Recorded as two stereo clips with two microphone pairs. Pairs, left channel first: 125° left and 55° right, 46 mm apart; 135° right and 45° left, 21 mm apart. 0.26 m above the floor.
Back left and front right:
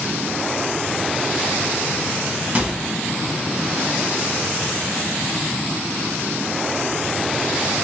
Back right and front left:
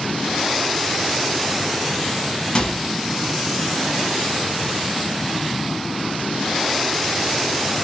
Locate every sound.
2.5 s a microwave: 100° right, 1.5 m